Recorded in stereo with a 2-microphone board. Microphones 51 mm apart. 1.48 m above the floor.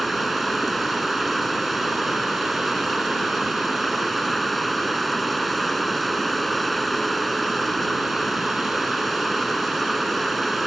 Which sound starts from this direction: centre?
Running water, at 0.0 s.